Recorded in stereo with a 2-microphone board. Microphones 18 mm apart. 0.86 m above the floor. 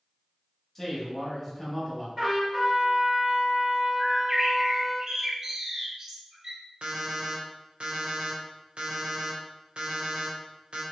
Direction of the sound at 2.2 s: 55° right (ahead or behind).